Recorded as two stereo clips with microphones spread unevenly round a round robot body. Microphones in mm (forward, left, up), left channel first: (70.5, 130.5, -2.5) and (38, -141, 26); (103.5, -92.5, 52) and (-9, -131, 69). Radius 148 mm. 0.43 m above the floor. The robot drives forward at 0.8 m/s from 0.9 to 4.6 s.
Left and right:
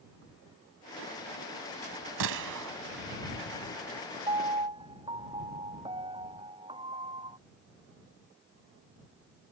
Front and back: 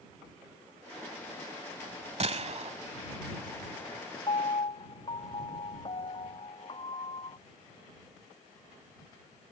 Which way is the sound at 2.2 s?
125° right.